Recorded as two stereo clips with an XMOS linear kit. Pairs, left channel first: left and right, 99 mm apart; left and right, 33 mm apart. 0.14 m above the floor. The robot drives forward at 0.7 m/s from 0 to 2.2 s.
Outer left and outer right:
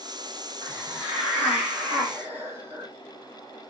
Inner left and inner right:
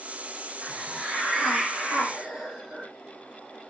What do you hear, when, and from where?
0.6 s a hiss: 15° right (ahead or behind), 6.5 m; by 2.9 s 20° right (ahead or behind), 5.5 m